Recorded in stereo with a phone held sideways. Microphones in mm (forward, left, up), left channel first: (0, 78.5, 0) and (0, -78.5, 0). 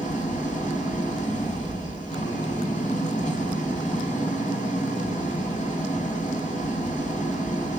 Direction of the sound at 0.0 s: 50° left (ahead or behind).